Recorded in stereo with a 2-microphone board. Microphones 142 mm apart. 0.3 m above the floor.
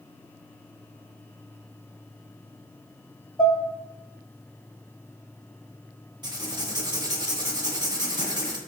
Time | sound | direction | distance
3.4 | dishes clattering | 30° left (ahead or behind) | 0.7 m
6.2 | writing | 30° right (ahead or behind) | 0.6 m